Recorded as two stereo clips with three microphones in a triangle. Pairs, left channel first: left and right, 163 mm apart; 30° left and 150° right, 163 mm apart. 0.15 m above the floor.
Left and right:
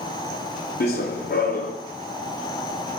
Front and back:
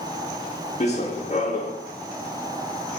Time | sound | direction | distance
0.8 | running footsteps | 75° left | 0.6 m